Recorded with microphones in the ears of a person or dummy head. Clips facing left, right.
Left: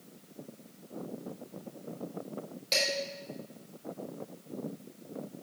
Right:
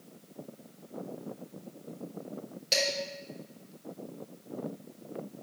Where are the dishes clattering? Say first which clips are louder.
Right 2 dB; 15° right (ahead or behind), 4.5 m.